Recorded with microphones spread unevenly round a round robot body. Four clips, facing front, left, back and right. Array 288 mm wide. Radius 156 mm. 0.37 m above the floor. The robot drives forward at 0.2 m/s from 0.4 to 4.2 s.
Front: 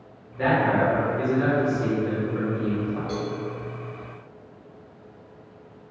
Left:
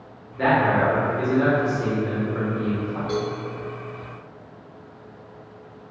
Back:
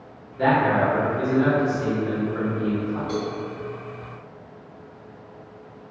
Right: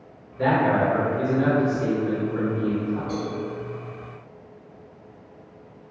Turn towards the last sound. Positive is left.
turn(degrees=85)